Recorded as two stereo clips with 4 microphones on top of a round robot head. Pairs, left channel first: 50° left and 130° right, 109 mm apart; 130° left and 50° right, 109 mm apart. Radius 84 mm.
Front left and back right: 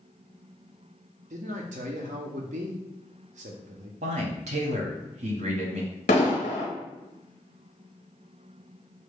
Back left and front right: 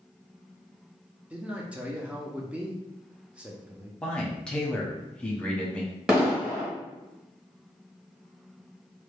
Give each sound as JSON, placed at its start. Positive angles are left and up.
{"t": 1.3, "sound": "a man speaking", "azimuth_deg": -130, "distance_m": 0.6}
{"t": 4.0, "sound": "a man speaking", "azimuth_deg": -150, "distance_m": 0.9}
{"t": 6.1, "sound": "an explosion", "azimuth_deg": 35, "distance_m": 0.6}